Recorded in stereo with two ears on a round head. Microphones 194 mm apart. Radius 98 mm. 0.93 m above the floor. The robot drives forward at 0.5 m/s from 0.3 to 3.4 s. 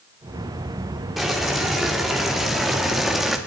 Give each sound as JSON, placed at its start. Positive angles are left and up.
{"t": 1.2, "sound": "boiling", "side_deg": 0, "distance_m": 3.0}